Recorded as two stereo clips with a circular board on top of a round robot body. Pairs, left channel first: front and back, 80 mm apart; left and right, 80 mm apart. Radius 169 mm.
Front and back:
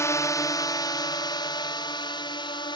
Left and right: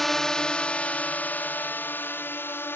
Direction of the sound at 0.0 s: 5° left.